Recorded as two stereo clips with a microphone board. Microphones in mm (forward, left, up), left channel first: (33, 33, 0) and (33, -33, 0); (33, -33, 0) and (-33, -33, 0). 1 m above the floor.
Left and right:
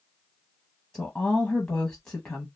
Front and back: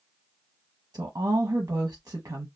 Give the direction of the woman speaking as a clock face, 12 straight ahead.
7 o'clock.